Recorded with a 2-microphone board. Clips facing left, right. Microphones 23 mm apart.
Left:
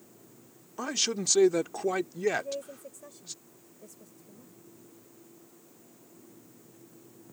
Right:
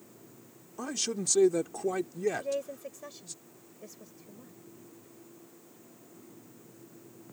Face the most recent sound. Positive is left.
turn(degrees=-45)  # may be behind; listen again after turning